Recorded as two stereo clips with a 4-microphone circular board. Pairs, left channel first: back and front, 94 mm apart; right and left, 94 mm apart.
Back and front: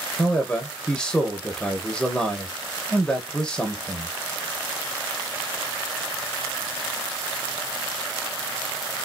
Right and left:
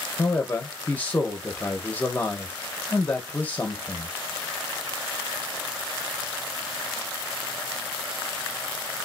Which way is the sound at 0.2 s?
115° right.